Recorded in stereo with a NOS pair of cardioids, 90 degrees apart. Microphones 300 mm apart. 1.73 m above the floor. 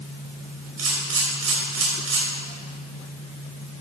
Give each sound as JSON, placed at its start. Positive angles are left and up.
{"t": 0.8, "sound": "a camera shutter", "azimuth_deg": -50, "distance_m": 5.0}